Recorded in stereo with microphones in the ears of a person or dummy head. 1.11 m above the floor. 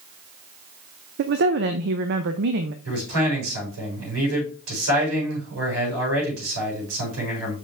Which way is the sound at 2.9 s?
75° right (ahead or behind).